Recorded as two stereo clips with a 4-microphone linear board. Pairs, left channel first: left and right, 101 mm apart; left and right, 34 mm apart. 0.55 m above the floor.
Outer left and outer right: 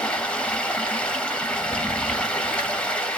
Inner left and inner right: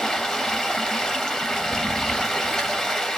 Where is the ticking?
I don't hear ticking.